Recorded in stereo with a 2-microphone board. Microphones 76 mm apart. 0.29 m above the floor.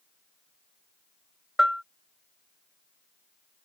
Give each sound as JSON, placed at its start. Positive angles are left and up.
{"t": 1.6, "sound": "a bell", "side_deg": -5}